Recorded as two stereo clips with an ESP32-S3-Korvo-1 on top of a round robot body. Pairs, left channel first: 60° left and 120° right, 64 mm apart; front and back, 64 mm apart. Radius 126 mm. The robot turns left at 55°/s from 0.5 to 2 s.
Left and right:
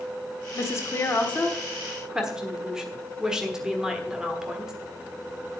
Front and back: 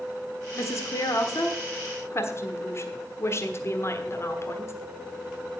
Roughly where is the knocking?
I don't hear knocking.